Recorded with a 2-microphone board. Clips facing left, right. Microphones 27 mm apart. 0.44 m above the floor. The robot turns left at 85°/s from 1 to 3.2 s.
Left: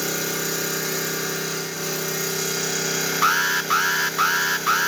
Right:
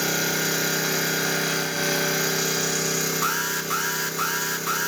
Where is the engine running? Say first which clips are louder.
Right 2 dB; 40° right, 2.5 m; by 4.9 s 130° left, 2.5 m.